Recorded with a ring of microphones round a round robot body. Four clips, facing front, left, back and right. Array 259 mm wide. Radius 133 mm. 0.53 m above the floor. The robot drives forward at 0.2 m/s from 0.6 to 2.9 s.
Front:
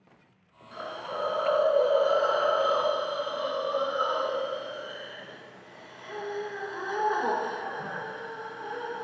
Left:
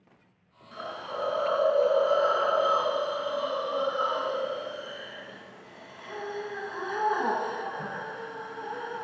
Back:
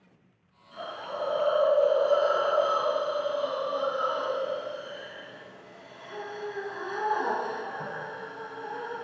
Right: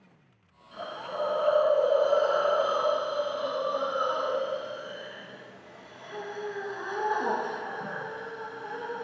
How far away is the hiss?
About 0.9 m.